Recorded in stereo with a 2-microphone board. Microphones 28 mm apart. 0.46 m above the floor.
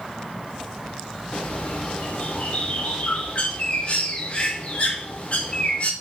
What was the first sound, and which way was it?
A bird, 50° left (ahead or behind).